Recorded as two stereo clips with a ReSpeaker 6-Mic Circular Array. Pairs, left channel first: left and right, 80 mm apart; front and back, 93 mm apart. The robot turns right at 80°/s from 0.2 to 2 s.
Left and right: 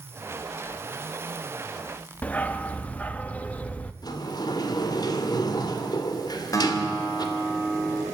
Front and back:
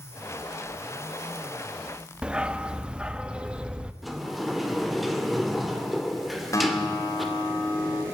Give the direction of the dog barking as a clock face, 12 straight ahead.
8 o'clock.